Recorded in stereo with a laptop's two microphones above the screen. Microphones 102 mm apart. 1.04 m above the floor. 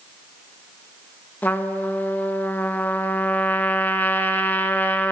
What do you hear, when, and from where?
1.4 s a trumpet: 20° left (ahead or behind), 1.5 m